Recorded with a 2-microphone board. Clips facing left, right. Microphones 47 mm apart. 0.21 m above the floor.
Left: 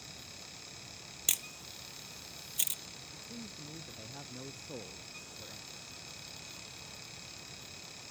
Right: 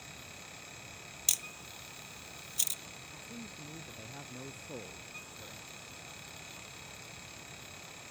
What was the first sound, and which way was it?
A camera shutter, 25° left (ahead or behind).